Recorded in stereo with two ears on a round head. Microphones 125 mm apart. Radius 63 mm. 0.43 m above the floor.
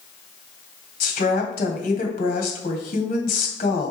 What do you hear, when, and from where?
1.0 s a woman speaking: 70° left (ahead or behind), 2 m